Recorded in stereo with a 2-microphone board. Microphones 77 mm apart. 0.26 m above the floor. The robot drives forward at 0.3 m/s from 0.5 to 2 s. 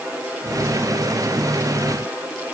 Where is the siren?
I don't hear a siren.